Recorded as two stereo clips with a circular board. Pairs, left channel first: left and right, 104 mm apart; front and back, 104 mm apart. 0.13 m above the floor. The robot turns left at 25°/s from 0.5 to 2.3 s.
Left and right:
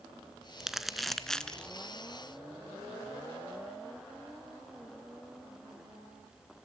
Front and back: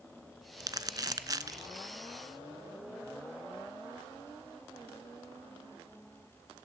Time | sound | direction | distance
0.6 | crumpling | 175° right | 0.5 m